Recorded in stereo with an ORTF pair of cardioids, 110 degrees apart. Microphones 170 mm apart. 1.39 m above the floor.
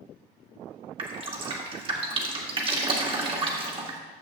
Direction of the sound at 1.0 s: 30° right.